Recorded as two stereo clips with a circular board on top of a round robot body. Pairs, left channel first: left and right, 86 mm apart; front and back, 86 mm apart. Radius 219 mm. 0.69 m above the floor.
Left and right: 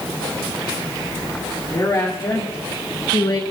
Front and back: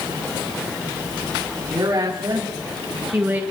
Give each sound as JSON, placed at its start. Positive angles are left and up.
{"t": 1.7, "sound": "a woman speaking", "azimuth_deg": 135, "distance_m": 3.5}